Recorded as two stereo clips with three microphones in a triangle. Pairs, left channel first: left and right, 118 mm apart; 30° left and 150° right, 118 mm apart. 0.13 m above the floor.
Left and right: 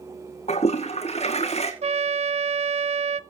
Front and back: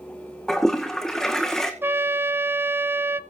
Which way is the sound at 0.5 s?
115° left.